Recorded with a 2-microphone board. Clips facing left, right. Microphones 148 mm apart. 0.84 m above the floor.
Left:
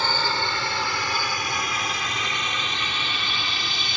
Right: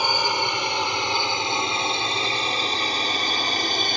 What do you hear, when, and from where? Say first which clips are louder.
0.0 s a drone: right 2 dB; 15° right (ahead or behind); by 4.0 s 50° right (ahead or behind)